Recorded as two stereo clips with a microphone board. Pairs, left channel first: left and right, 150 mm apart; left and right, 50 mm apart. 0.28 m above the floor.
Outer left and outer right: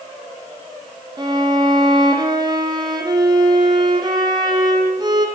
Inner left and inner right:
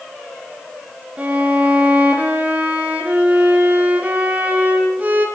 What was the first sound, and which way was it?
A violin, 30° right (ahead or behind).